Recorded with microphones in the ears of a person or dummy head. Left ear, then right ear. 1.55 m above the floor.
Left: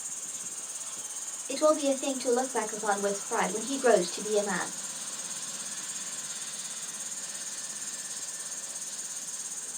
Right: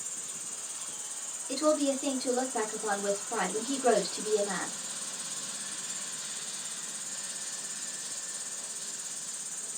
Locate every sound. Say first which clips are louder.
0.0 s an insect: left 1 dB; 20° left (ahead or behind), 0.9 m
1.5 s a woman speaking: left 3 dB; 40° left (ahead or behind), 1.1 m